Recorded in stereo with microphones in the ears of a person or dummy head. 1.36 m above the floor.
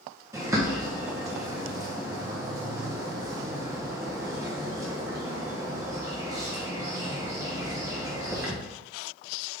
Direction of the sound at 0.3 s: 20° right (ahead or behind).